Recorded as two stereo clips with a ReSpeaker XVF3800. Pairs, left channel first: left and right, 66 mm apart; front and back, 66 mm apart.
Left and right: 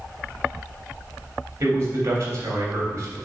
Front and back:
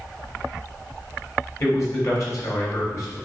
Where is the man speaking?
40° right, 3 m.